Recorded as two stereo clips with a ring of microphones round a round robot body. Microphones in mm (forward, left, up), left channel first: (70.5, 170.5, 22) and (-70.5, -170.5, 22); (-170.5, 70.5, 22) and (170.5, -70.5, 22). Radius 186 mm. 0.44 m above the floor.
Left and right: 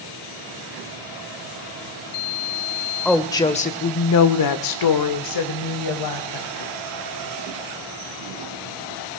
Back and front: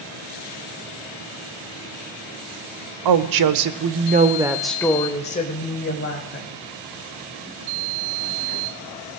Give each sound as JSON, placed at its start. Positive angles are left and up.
{"t": 3.0, "sound": "a woman speaking", "azimuth_deg": -20, "distance_m": 1.3}